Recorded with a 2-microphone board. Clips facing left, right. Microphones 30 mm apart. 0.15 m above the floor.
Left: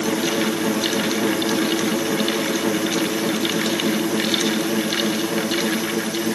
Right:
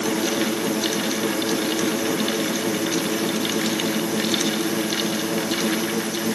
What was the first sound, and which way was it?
Only background noise.